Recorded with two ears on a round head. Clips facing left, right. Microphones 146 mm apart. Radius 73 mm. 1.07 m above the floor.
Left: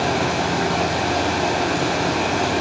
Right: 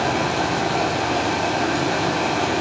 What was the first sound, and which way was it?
Running water, centre (ahead or behind).